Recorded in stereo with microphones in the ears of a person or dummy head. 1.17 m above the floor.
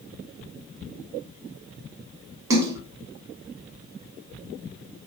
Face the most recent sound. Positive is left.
turn(degrees=-15)  # may be behind; listen again after turning